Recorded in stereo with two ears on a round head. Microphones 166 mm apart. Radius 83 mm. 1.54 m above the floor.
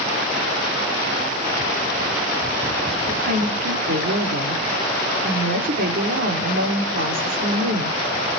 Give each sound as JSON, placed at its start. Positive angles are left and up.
{"t": 3.1, "sound": "a woman speaking", "side_deg": -50, "distance_m": 3.5}